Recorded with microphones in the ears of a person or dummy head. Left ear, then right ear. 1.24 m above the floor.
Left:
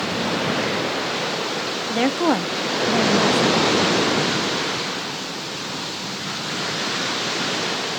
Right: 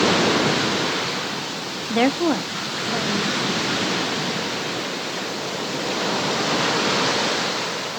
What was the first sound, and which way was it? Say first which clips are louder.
A woman speaking: right 1 dB; 20° right (ahead or behind).